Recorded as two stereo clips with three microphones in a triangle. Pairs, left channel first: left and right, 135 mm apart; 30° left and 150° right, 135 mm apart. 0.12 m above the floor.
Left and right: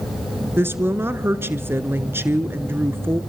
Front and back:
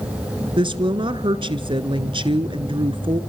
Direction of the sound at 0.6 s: 150° right.